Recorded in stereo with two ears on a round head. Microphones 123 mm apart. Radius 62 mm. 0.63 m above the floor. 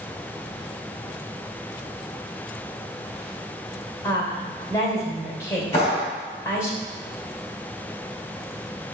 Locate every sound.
4.0 s a woman speaking: 25° left (ahead or behind), 2.5 m
5.7 s a clap: 45° left (ahead or behind), 4 m